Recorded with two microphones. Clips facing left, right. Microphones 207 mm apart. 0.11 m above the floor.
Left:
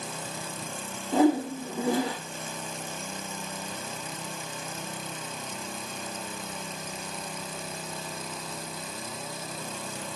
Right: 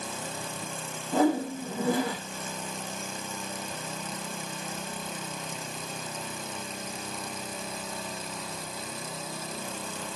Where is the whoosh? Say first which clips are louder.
Left 2 dB; 20° left (ahead or behind), 2.5 m.